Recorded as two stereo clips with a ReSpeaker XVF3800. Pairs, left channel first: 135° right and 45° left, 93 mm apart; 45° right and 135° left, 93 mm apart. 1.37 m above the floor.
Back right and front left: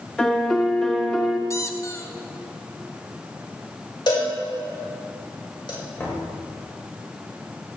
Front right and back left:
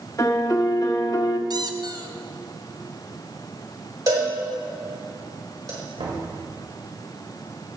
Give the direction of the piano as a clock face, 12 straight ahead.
2 o'clock.